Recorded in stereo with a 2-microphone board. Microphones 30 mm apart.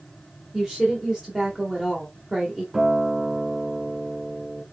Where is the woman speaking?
15° right (ahead or behind), 1.1 m.